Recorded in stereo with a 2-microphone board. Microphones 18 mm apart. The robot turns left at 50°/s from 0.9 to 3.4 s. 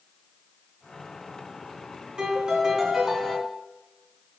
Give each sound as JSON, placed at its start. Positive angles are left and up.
{"t": 2.2, "sound": "a piano", "azimuth_deg": -115, "distance_m": 2.5}